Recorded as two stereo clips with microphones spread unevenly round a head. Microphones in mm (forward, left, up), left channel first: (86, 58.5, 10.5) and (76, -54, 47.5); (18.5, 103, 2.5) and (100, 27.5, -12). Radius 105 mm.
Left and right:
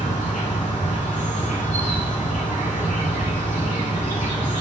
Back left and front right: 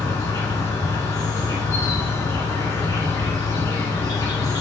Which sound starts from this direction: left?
An insect, at 0.0 s.